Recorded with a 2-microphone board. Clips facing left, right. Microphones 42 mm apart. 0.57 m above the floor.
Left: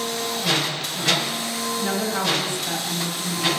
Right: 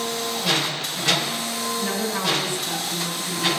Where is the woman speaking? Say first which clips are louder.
Left 2 dB; 35° left (ahead or behind), 3.5 m.